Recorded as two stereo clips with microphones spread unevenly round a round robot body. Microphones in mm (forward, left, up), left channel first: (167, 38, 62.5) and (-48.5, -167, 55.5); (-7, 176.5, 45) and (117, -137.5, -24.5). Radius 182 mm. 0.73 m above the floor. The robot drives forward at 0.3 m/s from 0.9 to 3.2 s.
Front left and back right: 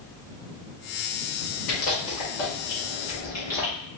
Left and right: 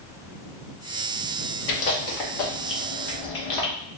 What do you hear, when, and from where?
1.7 s chewing: 80° left, 1.0 m; by 3.7 s 110° left, 1.1 m